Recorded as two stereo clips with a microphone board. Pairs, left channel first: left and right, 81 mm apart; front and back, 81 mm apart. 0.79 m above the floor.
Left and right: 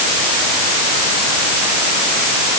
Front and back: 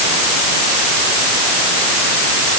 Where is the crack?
No crack in this recording.